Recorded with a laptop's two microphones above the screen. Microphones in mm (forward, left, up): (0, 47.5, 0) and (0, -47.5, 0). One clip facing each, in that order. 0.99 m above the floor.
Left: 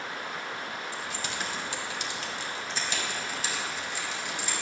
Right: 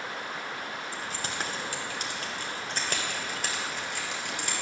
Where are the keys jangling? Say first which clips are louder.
Even; 40° right (ahead or behind), 2 m; by 4.6 s 65° right (ahead or behind), 4 m.